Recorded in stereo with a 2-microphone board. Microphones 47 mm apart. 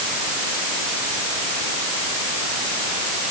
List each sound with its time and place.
Only background noise.